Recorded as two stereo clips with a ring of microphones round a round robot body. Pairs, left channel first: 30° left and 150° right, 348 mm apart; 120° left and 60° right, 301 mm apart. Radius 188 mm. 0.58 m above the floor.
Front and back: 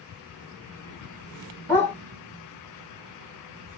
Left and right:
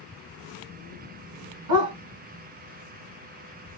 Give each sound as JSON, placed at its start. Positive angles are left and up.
{"t": 1.7, "sound": "a dog barking", "azimuth_deg": -55, "distance_m": 1.7}